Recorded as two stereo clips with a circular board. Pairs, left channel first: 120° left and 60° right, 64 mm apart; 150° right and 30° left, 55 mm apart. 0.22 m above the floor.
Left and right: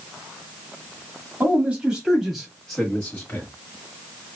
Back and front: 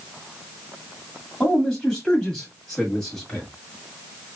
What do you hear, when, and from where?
1.4 s a man speaking: 75° right, 1.5 m; by 3.5 s 130° left, 1.6 m